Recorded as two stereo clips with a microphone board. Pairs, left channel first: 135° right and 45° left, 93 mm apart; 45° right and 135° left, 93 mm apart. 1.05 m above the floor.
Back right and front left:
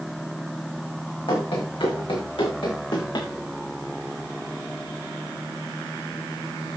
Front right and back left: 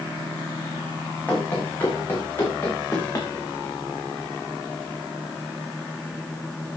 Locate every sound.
1.3 s running footsteps: 115° right, 6 m; by 3.3 s 105° right, 5.5 m